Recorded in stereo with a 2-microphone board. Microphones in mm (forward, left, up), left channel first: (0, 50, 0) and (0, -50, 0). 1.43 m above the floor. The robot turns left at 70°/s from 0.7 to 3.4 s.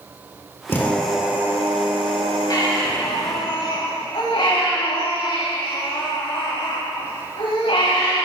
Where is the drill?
25° left, 2.5 m; by 3.5 s 160° right, 2.5 m.